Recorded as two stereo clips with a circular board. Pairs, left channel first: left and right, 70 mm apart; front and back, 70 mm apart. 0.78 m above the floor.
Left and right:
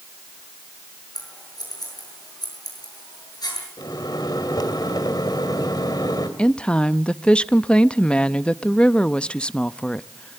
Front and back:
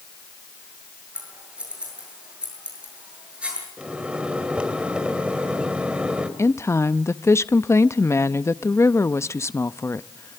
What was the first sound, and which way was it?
Scissors, 105° left.